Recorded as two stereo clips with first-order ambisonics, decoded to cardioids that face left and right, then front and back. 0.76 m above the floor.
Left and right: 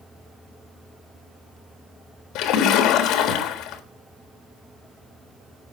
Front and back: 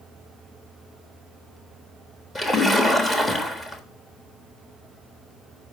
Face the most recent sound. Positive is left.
turn(degrees=80)